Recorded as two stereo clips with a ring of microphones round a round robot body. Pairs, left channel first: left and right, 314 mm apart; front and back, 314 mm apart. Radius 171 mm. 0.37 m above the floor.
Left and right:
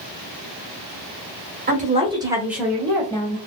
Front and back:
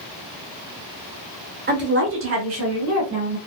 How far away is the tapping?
I don't hear tapping.